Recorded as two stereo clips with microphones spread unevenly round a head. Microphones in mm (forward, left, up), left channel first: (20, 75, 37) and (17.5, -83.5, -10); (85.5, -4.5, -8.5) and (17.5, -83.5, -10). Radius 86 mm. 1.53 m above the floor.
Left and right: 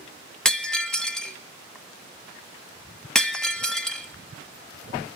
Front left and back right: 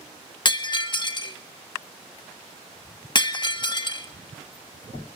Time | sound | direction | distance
0.5 | breaking glass | 10° left | 1.5 m